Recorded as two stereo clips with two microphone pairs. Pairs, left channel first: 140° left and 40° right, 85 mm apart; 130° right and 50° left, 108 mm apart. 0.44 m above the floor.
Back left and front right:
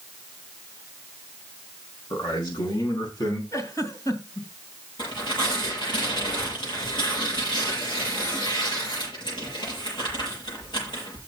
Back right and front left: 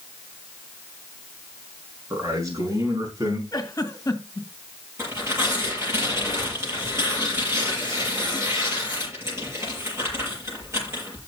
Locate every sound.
2.1 s a man speaking: 115° left, 5.5 m; by 3.4 s 105° left, 4 m
3.5 s a giggle: straight behind, 1.9 m
5.0 s tearing paper: 115° left, 7 m